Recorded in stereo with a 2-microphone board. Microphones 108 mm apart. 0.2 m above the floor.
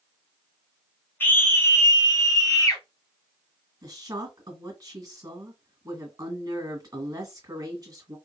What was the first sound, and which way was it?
A scream, 20° left (ahead or behind).